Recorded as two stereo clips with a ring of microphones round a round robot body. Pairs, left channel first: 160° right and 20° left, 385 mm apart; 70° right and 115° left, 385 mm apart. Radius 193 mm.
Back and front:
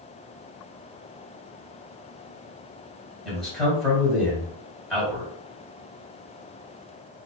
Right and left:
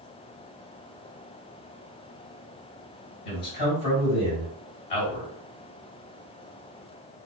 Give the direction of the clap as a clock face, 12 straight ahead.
No clap in this recording.